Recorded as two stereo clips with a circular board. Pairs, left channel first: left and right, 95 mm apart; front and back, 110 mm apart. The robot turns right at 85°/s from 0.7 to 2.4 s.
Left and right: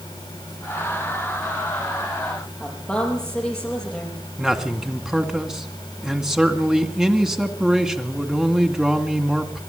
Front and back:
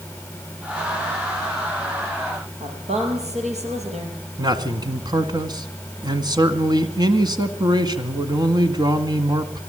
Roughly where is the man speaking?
Behind.